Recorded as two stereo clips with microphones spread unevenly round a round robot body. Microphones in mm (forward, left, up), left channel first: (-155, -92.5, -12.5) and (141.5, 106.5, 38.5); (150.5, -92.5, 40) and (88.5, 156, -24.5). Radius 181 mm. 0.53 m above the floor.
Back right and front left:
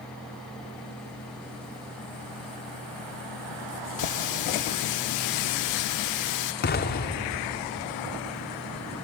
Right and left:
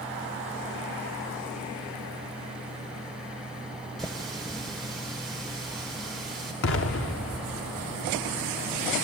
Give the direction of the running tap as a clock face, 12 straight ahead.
6 o'clock.